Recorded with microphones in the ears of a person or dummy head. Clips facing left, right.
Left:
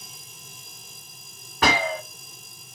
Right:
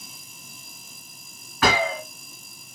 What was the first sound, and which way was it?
A gunshot, 30° left (ahead or behind).